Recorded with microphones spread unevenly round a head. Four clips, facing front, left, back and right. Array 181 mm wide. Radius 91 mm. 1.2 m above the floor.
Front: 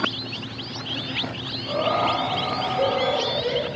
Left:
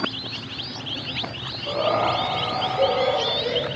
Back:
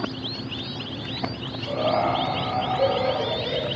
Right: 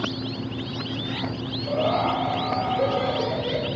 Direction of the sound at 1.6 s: 65° left.